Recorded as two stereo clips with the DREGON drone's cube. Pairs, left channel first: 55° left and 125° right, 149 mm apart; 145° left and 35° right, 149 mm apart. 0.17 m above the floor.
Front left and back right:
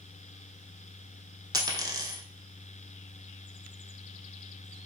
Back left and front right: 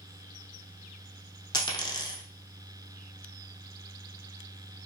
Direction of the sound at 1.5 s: 170° right.